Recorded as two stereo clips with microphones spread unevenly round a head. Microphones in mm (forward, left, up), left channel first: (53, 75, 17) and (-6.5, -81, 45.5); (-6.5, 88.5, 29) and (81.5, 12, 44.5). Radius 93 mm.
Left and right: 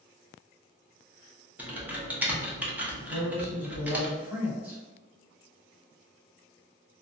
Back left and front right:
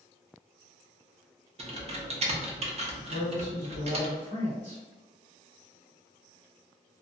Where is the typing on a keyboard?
25° right, 0.7 m.